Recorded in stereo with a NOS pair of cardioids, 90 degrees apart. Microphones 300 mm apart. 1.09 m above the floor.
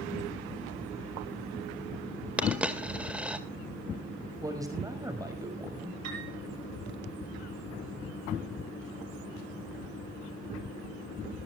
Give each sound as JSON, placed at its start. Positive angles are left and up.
{"t": 2.4, "sound": "a dropped coin", "azimuth_deg": -5, "distance_m": 2.0}
{"t": 4.4, "sound": "a man speaking", "azimuth_deg": -10, "distance_m": 5.5}
{"t": 6.0, "sound": "a piano", "azimuth_deg": -65, "distance_m": 8.0}